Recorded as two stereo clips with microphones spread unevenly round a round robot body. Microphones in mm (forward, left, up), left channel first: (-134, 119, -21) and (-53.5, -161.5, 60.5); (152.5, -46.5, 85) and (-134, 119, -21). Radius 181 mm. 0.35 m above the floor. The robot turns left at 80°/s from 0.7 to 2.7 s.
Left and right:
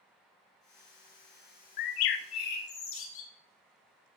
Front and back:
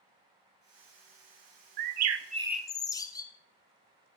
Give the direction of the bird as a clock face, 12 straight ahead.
8 o'clock.